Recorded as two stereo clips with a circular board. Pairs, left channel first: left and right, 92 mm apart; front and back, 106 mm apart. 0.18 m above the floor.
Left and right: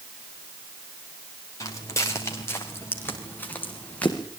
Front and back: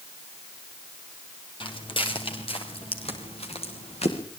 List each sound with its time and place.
1.6 s footsteps: 35° left, 7.5 m; by 4.2 s 15° left, 7.5 m